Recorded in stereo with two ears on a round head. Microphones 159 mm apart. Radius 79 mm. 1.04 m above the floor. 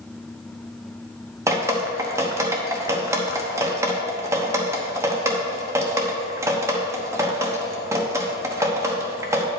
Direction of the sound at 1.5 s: 15° right (ahead or behind).